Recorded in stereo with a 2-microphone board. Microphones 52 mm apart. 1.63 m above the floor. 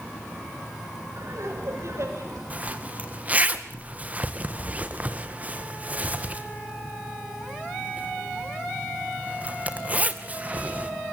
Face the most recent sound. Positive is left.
turn(degrees=-30)  # may be behind; listen again after turning